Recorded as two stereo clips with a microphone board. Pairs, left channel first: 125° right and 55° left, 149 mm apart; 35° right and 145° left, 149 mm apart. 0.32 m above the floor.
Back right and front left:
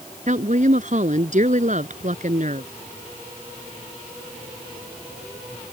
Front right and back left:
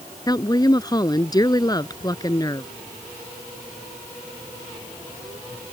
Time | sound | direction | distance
0.3 | a woman speaking | 30° left | ?